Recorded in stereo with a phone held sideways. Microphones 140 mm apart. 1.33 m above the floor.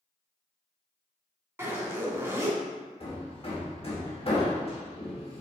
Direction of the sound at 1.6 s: 15° right (ahead or behind).